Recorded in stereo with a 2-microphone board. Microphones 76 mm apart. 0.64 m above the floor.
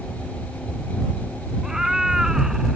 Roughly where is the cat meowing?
Centre.